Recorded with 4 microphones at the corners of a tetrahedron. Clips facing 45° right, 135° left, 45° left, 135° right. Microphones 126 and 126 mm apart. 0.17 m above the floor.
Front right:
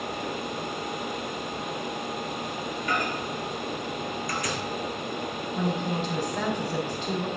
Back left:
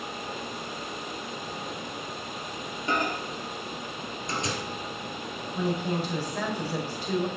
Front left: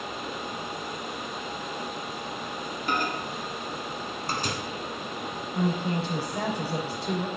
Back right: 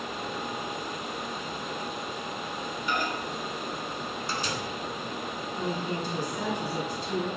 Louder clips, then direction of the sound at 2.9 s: Back left 2 dB, front left 2 dB; 75° left.